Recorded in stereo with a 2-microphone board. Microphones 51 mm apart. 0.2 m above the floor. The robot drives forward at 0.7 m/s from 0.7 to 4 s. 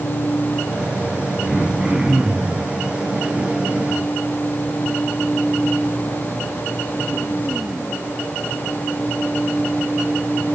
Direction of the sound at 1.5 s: 5° right (ahead or behind).